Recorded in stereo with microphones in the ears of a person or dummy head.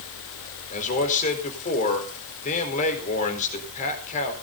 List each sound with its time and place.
0.7 s a man speaking: 45° left (ahead or behind), 4.5 m